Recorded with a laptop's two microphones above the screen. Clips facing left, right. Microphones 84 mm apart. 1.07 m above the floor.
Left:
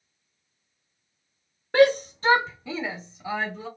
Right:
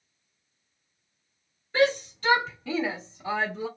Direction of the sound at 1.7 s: 65° left (ahead or behind).